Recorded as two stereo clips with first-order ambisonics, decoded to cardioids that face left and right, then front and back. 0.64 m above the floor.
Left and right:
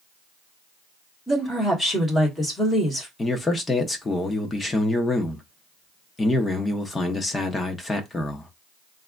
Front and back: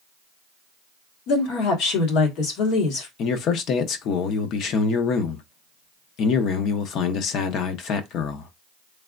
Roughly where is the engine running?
I don't hear an engine running.